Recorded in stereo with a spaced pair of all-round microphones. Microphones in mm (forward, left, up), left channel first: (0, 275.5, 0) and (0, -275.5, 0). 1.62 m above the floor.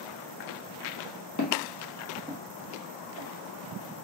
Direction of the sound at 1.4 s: 35° left (ahead or behind).